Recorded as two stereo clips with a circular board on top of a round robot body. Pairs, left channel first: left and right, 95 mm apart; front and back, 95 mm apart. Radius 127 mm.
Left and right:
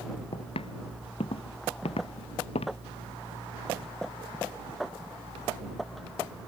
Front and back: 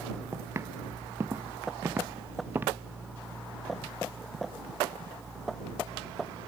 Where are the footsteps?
115° left; by 2.8 s 110° left.